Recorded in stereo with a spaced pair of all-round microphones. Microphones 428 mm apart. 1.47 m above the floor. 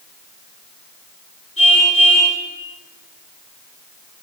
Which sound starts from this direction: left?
A car horn, at 1.6 s.